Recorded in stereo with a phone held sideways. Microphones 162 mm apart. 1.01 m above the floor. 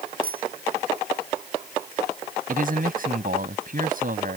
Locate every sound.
0.2 s a bicycle bell: 60° right (ahead or behind)
2.5 s a man speaking: 60° right (ahead or behind)